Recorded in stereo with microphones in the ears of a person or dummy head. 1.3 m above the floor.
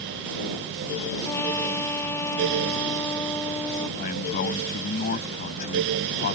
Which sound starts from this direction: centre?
A trumpet, at 1.2 s.